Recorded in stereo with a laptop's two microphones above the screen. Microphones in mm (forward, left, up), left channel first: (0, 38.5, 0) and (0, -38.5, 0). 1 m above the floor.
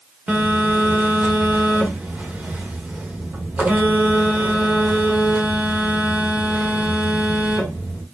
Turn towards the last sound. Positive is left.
turn(degrees=-20)  # may be behind; listen again after turning